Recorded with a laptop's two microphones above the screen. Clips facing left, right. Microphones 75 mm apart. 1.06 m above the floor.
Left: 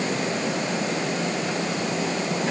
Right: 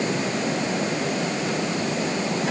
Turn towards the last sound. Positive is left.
No sound to turn to.